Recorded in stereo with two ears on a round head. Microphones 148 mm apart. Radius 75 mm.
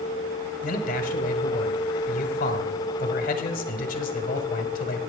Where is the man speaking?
55° left (ahead or behind), 1.4 m.